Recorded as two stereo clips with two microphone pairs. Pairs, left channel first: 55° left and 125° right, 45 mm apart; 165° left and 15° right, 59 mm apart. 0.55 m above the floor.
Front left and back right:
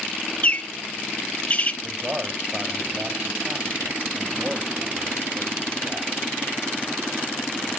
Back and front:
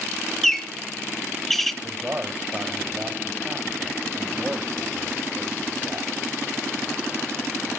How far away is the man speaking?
About 3.5 m.